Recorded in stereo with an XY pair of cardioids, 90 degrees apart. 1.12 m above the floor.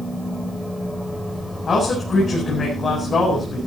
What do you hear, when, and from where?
0.0 s a machine running: 10° left, 3 m
1.7 s a man speaking: 45° left, 8 m